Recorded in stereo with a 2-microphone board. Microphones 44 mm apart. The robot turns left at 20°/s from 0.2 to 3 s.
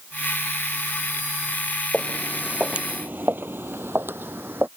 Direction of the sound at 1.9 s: 10° left (ahead or behind).